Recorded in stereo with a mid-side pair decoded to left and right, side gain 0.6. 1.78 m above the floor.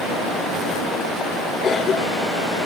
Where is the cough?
40° left, 5 m.